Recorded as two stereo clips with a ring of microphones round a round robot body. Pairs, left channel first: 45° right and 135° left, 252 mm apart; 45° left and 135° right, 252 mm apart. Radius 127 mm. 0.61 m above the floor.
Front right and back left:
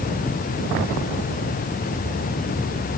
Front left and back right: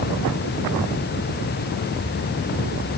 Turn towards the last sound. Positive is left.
No sound to turn to.